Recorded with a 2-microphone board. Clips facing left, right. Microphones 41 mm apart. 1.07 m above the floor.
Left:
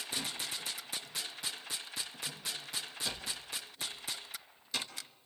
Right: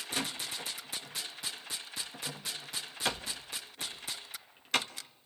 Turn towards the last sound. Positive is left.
turn(degrees=-70)  # may be behind; listen again after turning